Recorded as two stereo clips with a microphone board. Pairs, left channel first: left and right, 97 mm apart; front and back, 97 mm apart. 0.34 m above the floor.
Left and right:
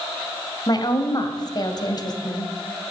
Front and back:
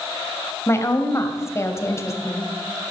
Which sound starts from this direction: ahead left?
A woman speaking, at 0.7 s.